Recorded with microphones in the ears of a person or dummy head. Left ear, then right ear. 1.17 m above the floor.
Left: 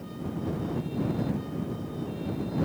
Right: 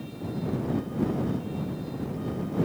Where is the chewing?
I don't hear chewing.